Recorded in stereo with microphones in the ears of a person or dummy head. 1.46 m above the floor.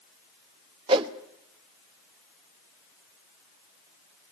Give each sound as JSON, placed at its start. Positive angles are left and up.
{"t": 0.9, "sound": "a whoosh", "side_deg": -30, "distance_m": 0.9}